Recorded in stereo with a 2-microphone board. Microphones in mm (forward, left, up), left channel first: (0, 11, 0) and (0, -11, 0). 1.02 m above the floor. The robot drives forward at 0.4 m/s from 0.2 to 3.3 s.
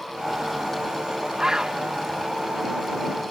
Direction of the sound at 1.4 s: 30° right (ahead or behind).